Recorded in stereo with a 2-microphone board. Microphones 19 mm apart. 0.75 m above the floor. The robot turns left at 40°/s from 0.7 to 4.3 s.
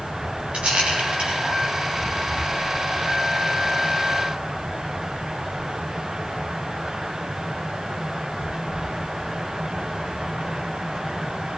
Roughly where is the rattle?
Right.